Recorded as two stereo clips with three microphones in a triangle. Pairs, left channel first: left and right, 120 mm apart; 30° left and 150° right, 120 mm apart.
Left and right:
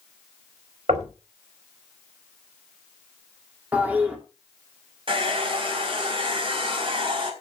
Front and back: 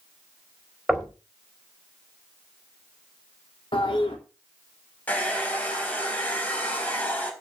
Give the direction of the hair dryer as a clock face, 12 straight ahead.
2 o'clock.